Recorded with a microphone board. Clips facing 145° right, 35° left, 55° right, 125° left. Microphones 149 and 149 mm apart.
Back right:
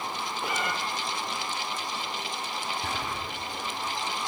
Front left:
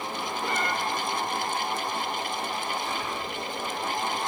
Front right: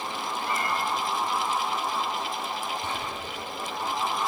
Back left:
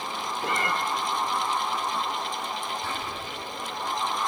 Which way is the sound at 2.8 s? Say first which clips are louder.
Front left 2 dB, front right 1 dB; 125° right.